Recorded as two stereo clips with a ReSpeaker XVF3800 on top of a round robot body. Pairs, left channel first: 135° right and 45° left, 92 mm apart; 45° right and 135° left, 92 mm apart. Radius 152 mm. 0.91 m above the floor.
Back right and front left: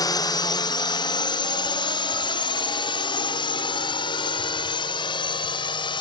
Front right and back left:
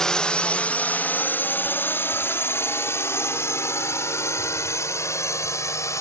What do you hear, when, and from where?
0.0 s a drone: 125° right; by 6.0 s 105° right